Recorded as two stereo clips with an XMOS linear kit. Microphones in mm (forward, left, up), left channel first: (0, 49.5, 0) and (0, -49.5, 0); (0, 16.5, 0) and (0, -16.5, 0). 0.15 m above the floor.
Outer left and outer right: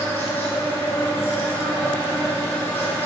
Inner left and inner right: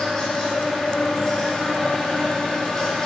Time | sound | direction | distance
0.0 | an insect | 20° left (ahead or behind) | 1.6 m